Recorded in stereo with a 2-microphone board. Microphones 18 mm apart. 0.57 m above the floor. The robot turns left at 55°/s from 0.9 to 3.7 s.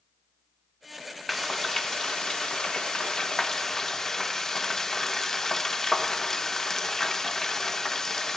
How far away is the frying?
About 0.8 m.